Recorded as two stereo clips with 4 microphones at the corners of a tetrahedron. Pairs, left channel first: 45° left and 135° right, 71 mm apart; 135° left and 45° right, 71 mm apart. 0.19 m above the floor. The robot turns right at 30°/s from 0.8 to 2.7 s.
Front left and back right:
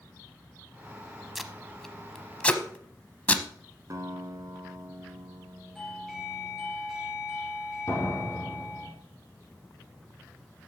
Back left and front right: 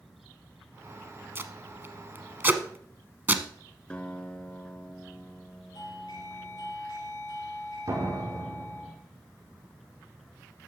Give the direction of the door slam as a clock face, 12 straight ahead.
12 o'clock.